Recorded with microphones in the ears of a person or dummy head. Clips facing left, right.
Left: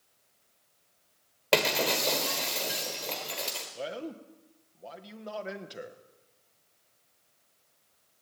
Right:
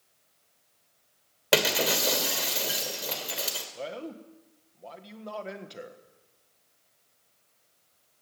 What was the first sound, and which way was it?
Breaking glass, 10° right (ahead or behind).